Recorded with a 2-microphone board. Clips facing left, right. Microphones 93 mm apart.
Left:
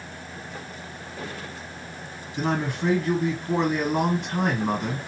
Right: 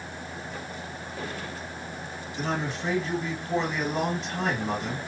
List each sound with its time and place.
2.4 s a man speaking: 55° left (ahead or behind), 2.5 m